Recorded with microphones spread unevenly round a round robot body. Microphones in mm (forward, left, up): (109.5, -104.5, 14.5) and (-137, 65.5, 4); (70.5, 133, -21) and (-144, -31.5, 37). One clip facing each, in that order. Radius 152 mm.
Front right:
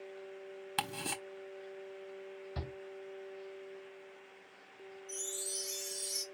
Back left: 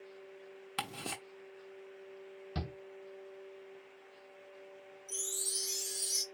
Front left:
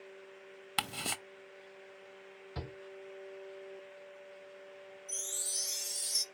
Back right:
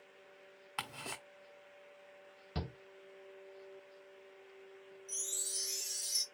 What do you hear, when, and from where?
0.8 s ticking: 45° left, 0.8 m
2.5 s a shout: 170° left, 1.8 m
5.1 s a chime: 110° left, 1.4 m